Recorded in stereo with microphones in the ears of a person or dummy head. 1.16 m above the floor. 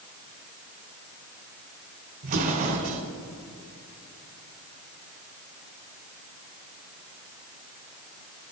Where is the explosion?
30° right (ahead or behind), 1.4 m.